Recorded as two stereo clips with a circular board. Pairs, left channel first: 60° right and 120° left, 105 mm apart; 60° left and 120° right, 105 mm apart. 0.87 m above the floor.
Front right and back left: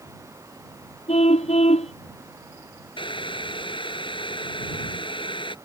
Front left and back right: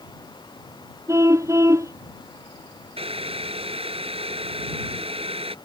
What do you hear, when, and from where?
1.1 s a car horn: 60° right
3.0 s boiling: 95° right